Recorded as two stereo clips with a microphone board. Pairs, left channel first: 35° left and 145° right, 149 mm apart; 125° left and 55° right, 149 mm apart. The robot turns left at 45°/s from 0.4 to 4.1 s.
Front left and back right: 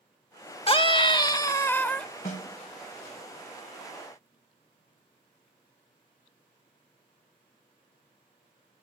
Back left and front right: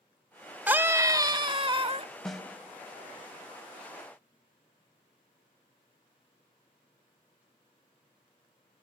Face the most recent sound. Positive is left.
turn(degrees=-45)